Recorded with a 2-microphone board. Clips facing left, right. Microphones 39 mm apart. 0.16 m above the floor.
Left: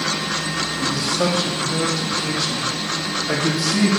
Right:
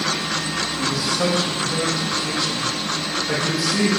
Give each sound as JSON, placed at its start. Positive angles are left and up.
{"t": 0.8, "sound": "a man speaking", "side_deg": -5, "distance_m": 6.0}